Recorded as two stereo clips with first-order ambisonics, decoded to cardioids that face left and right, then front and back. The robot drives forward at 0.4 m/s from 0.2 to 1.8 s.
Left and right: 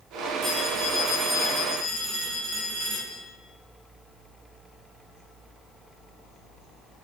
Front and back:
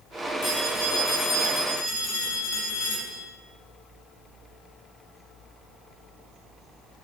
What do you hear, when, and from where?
0.4 s a phone ringing: 45° right, 5 m